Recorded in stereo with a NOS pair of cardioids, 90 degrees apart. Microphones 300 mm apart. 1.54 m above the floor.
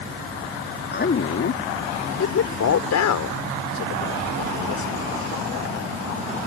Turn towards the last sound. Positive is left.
turn(degrees=80)